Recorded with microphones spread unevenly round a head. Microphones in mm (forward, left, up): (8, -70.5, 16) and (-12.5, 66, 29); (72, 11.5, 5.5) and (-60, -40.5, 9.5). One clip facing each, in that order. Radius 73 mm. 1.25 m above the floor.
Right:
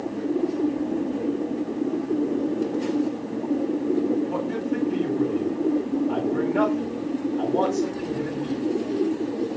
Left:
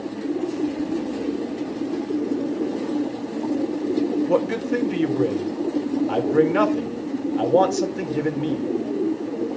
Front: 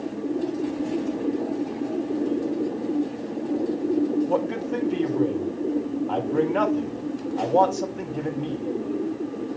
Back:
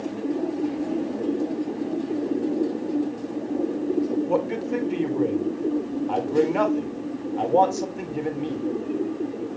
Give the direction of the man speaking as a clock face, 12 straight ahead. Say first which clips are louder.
Left 5 dB, back 1 dB; 8 o'clock.